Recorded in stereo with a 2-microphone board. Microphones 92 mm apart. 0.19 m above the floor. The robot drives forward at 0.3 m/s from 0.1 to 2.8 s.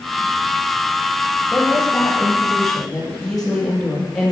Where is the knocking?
No knocking in this recording.